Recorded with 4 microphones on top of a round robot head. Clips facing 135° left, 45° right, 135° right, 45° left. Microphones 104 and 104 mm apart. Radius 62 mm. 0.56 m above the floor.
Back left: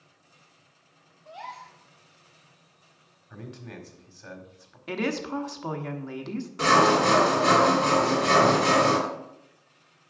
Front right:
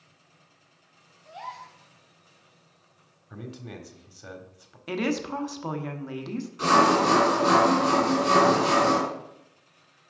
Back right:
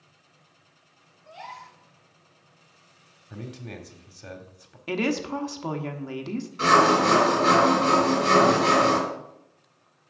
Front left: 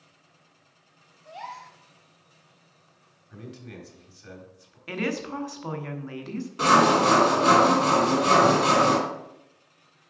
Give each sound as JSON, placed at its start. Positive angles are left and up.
{"t": 1.2, "sound": "a gasp", "azimuth_deg": 45, "distance_m": 1.8}
{"t": 3.3, "sound": "a man speaking", "azimuth_deg": -125, "distance_m": 1.5}
{"t": 4.9, "sound": "a woman speaking", "azimuth_deg": -130, "distance_m": 1.0}
{"t": 6.6, "sound": "sawing", "azimuth_deg": 90, "distance_m": 3.0}